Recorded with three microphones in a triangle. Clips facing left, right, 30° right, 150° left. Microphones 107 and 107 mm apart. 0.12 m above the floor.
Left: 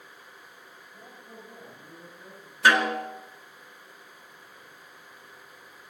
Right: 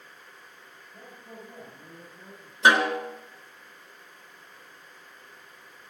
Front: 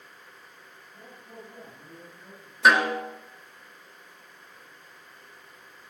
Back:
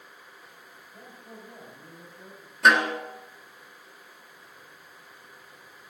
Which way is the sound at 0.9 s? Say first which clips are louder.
Right 3 dB, even; 155° right.